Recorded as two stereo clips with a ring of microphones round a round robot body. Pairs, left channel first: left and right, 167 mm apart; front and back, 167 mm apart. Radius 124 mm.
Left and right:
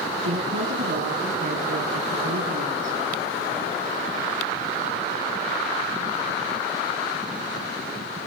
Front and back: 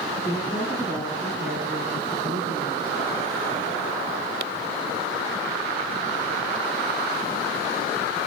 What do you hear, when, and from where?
0.2 s a woman speaking: 75° right, 3.5 m; by 3.0 s 110° right, 4 m